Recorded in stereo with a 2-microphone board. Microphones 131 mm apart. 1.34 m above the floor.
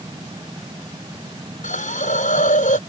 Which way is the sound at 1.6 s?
90° left.